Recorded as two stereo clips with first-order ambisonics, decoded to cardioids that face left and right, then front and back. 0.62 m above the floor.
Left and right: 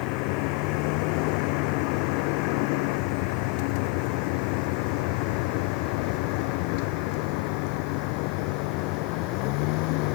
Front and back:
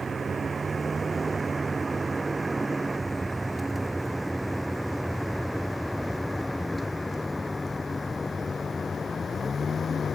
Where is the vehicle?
105° left; by 10.2 s 70° left.